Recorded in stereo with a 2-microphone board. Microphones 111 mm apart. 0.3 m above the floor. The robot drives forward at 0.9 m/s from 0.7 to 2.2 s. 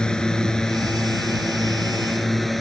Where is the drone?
5° left (ahead or behind); by 2.6 s centre (ahead or behind).